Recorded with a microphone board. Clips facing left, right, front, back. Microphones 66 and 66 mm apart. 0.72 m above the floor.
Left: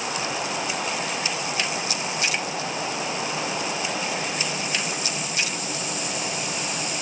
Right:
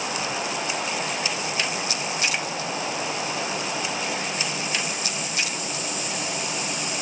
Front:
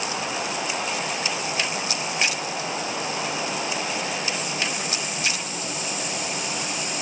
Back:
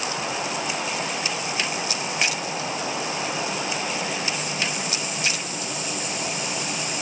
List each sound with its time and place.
Only background noise.